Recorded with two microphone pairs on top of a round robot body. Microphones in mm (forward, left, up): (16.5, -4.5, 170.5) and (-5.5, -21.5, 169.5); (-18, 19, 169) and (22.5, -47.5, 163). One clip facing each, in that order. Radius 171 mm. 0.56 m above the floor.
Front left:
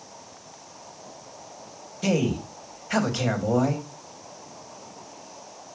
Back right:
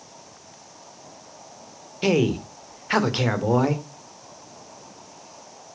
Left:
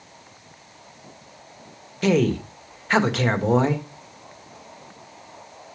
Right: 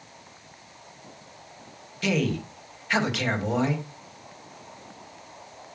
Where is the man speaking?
175° left, 1.9 m.